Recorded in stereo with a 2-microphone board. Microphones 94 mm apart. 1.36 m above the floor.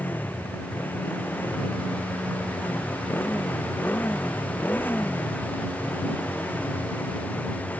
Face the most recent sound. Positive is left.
turn(degrees=20)  # may be behind; listen again after turning